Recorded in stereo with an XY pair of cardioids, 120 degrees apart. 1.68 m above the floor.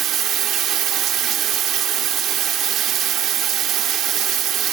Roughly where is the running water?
Ahead right.